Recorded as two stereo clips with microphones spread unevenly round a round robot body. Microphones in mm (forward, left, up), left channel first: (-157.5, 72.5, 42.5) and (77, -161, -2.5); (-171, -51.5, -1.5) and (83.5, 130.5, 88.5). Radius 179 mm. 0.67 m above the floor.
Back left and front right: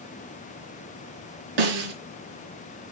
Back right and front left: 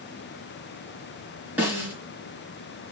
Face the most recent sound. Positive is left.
turn(degrees=-50)